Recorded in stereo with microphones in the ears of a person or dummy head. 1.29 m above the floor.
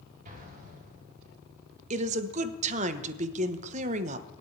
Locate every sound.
0.2 s an explosion: 50° right (ahead or behind), 4 m
1.9 s a woman speaking: 40° right (ahead or behind), 1.0 m